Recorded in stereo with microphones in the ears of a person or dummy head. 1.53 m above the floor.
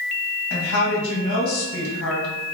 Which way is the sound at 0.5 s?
80° left.